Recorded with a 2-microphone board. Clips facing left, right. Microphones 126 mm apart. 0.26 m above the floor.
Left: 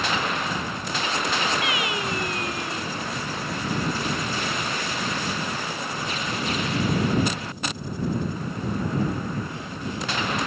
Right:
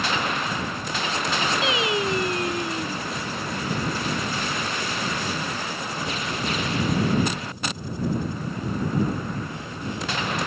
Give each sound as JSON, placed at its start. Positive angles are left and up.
{"t": 1.6, "sound": "singing", "side_deg": -25}